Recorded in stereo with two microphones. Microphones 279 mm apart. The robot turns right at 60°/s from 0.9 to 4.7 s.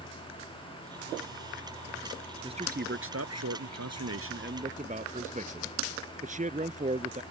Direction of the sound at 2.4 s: 165° right.